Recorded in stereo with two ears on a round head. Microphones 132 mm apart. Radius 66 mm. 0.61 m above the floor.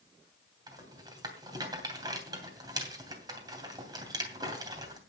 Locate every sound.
0.7 s a rattle: 30° right (ahead or behind), 2.5 m